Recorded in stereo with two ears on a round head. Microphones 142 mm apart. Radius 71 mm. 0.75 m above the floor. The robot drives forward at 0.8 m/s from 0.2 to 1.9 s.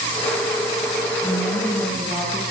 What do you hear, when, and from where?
1.2 s a woman speaking: 10° left (ahead or behind), 7.5 m